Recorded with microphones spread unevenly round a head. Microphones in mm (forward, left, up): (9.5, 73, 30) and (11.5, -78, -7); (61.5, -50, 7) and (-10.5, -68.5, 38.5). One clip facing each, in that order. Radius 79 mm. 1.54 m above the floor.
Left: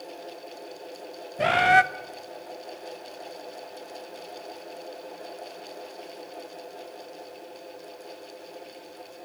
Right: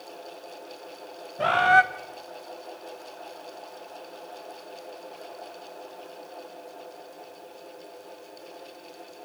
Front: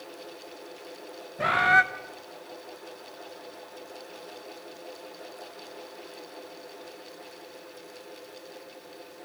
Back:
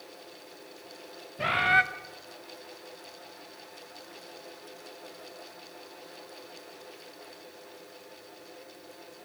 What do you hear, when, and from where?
1.4 s a bird: 110° left, 0.7 m